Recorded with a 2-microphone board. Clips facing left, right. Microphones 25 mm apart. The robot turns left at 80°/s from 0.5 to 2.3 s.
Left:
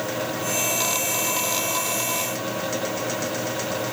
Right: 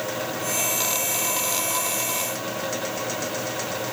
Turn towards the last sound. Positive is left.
No sound to turn to.